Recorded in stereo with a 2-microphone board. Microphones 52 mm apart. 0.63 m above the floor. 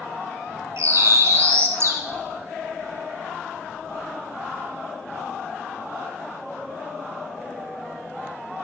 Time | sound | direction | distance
0.8 | a bird | 60° right (ahead or behind) | 0.8 m